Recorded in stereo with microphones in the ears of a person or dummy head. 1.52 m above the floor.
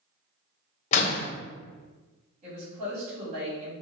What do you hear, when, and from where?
0.9 s a door slam: 45° left (ahead or behind), 0.6 m
2.4 s a woman speaking: 45° right (ahead or behind), 1.8 m